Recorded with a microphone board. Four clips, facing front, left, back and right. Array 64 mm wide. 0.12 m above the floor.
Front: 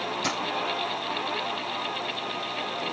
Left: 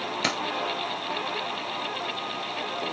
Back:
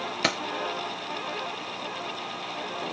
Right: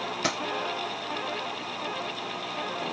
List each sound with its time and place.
0.2 s keys jangling: 160° left, 1.7 m